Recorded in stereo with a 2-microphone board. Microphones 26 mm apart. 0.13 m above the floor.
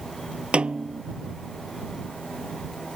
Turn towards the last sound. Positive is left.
turn(degrees=-50)  # may be behind; listen again after turning